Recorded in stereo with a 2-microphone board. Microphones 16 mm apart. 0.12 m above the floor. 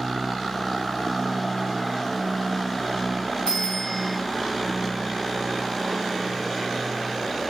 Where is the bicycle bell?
85° left, 9.5 m.